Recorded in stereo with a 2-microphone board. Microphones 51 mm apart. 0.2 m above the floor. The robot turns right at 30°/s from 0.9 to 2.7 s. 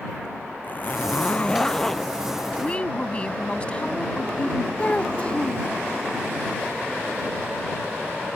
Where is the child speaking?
25° left (ahead or behind).